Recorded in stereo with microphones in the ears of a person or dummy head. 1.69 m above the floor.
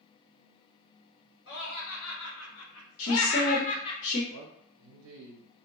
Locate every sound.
1.5 s laughter: 70° left (ahead or behind), 1.4 m; by 4.0 s 20° left (ahead or behind), 0.5 m
3.0 s a woman speaking: 50° left (ahead or behind), 0.6 m
4.3 s a man speaking: 85° right, 0.6 m